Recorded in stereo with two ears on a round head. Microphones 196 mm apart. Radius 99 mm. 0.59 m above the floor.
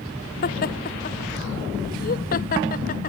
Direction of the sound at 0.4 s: 40° left (ahead or behind).